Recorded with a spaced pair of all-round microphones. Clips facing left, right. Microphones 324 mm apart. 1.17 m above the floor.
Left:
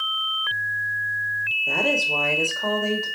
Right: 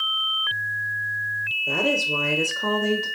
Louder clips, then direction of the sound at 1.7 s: Right 1 dB; 5° right (ahead or behind).